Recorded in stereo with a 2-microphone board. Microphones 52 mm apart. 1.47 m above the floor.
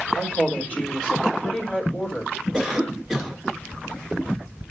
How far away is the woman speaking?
About 3.5 m.